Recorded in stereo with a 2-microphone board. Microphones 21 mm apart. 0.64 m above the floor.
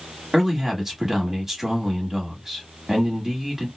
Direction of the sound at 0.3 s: 10° right (ahead or behind).